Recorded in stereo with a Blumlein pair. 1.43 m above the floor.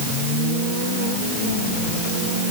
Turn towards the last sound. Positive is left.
No sound to turn to.